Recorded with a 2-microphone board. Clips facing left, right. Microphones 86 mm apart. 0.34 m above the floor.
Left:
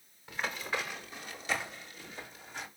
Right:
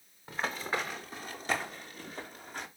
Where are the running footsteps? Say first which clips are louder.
Right 2 dB; 35° right (ahead or behind), 3.5 m; by 2.7 s 50° right (ahead or behind), 5 m.